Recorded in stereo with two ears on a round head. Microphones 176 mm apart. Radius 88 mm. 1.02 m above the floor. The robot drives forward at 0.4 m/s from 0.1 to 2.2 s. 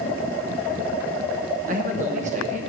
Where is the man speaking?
40° right (ahead or behind), 0.9 m.